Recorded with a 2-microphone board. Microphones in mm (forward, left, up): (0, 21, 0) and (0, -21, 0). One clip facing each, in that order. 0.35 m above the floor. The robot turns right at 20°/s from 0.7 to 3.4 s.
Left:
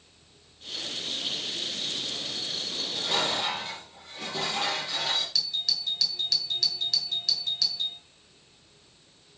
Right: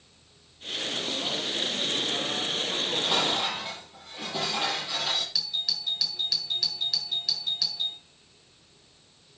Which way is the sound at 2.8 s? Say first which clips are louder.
Right 1 dB; 25° right (ahead or behind).